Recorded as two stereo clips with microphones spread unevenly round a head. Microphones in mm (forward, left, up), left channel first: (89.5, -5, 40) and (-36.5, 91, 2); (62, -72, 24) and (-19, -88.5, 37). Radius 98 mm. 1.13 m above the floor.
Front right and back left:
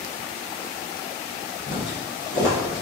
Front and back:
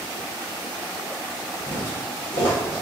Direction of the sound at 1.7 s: 15° right.